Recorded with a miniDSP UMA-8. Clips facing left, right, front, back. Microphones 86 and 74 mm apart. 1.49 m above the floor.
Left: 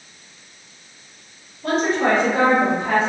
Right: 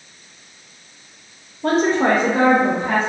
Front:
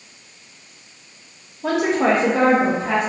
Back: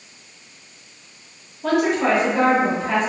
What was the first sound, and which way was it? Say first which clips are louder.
A woman speaking: right 3 dB, front 1 dB; 80° right.